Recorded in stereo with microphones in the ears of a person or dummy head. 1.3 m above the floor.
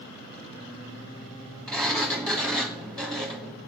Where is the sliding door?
Centre (ahead or behind), 1.3 m.